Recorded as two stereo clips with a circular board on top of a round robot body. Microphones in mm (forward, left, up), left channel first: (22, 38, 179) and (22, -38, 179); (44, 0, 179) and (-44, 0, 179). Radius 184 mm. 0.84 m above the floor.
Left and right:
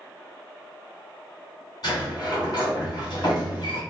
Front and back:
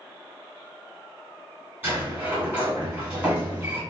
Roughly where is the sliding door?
Behind left.